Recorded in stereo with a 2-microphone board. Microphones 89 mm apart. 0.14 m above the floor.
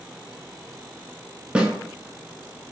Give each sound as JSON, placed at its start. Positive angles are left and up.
{"t": 1.6, "sound": "a snare drum", "side_deg": -15, "distance_m": 0.7}